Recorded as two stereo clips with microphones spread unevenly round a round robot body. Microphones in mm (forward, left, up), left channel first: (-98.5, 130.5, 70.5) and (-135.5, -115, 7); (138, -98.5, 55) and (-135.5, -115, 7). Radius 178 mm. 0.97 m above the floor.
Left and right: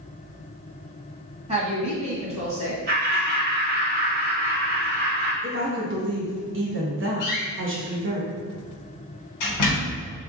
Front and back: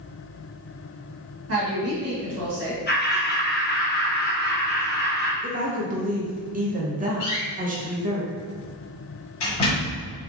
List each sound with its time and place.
1.5 s a woman speaking: 155° right, 1.6 m
2.9 s laughter: 55° right, 1.6 m
5.4 s a woman speaking: 120° right, 1.2 m
7.2 s a door slam: 50° left, 1.2 m